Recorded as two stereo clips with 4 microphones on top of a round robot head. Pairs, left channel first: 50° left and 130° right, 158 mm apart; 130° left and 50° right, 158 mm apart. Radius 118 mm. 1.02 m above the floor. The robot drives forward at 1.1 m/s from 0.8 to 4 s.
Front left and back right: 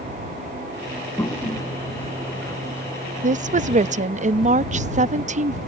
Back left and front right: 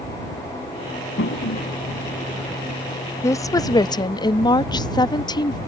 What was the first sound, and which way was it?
A toilet flushing, 130° left.